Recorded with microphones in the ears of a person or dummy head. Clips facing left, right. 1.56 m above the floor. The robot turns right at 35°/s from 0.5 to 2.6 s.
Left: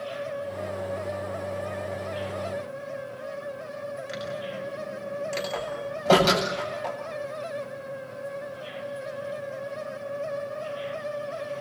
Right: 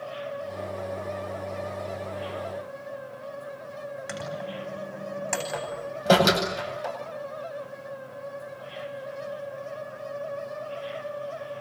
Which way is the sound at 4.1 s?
80° right.